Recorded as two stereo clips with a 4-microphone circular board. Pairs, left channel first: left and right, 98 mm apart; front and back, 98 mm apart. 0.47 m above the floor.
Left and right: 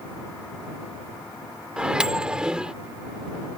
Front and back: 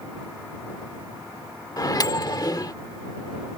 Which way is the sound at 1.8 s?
15° right.